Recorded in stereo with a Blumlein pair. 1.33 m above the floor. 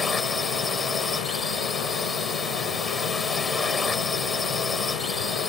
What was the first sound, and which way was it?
A drone, 10° left.